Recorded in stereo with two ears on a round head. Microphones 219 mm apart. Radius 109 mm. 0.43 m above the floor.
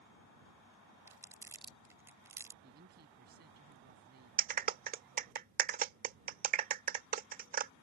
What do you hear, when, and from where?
1.1 s crumpling: 10° right (ahead or behind)
2.6 s a woman speaking: 45° right (ahead or behind)
4.4 s a clap: 40° right (ahead or behind)